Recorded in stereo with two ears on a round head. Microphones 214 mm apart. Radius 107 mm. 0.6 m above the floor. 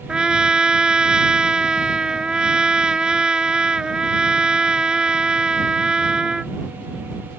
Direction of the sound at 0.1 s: 5° right (ahead or behind).